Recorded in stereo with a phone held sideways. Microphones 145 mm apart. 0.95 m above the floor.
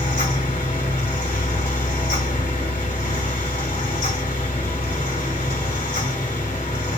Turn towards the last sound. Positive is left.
turn(degrees=75)  # may be behind; listen again after turning